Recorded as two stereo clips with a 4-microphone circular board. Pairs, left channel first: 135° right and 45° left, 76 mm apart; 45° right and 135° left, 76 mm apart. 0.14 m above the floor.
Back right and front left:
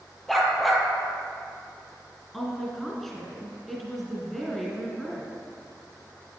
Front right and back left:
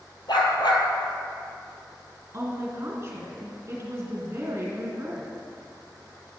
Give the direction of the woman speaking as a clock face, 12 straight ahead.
7 o'clock.